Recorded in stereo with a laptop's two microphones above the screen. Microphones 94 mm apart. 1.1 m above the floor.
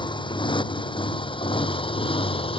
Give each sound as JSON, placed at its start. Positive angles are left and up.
{"t": 0.0, "sound": "a motorcycle", "side_deg": 60}